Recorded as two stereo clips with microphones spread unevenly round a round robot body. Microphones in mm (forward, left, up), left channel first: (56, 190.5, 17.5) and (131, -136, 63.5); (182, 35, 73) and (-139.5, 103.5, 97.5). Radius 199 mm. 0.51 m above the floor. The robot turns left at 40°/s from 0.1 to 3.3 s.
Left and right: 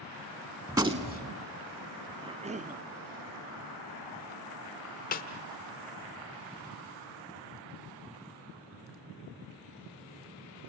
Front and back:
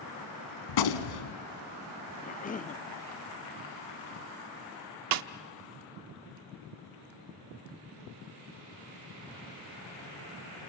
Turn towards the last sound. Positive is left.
turn(degrees=160)